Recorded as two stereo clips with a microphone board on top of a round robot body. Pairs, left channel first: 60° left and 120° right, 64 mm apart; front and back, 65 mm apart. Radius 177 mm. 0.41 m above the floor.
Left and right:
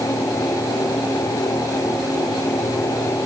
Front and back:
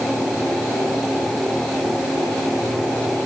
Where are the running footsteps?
No running footsteps in this recording.